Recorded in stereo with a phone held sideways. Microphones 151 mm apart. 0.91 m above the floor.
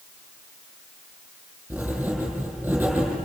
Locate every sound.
1.7 s writing: 10° right (ahead or behind), 7.5 m